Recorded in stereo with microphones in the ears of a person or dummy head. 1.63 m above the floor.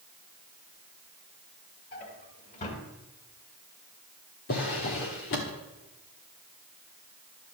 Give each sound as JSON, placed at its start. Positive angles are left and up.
{"t": 1.9, "sound": "a drawer", "side_deg": 40, "distance_m": 2.0}
{"t": 4.5, "sound": "a drawer", "side_deg": 30, "distance_m": 1.4}